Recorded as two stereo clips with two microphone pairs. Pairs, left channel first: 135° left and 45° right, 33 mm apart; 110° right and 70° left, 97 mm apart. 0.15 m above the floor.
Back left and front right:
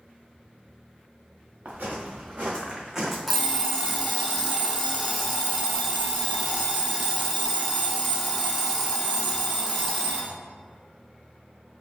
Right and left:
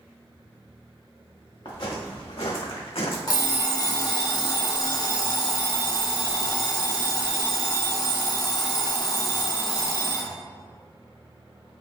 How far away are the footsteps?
About 1.0 m.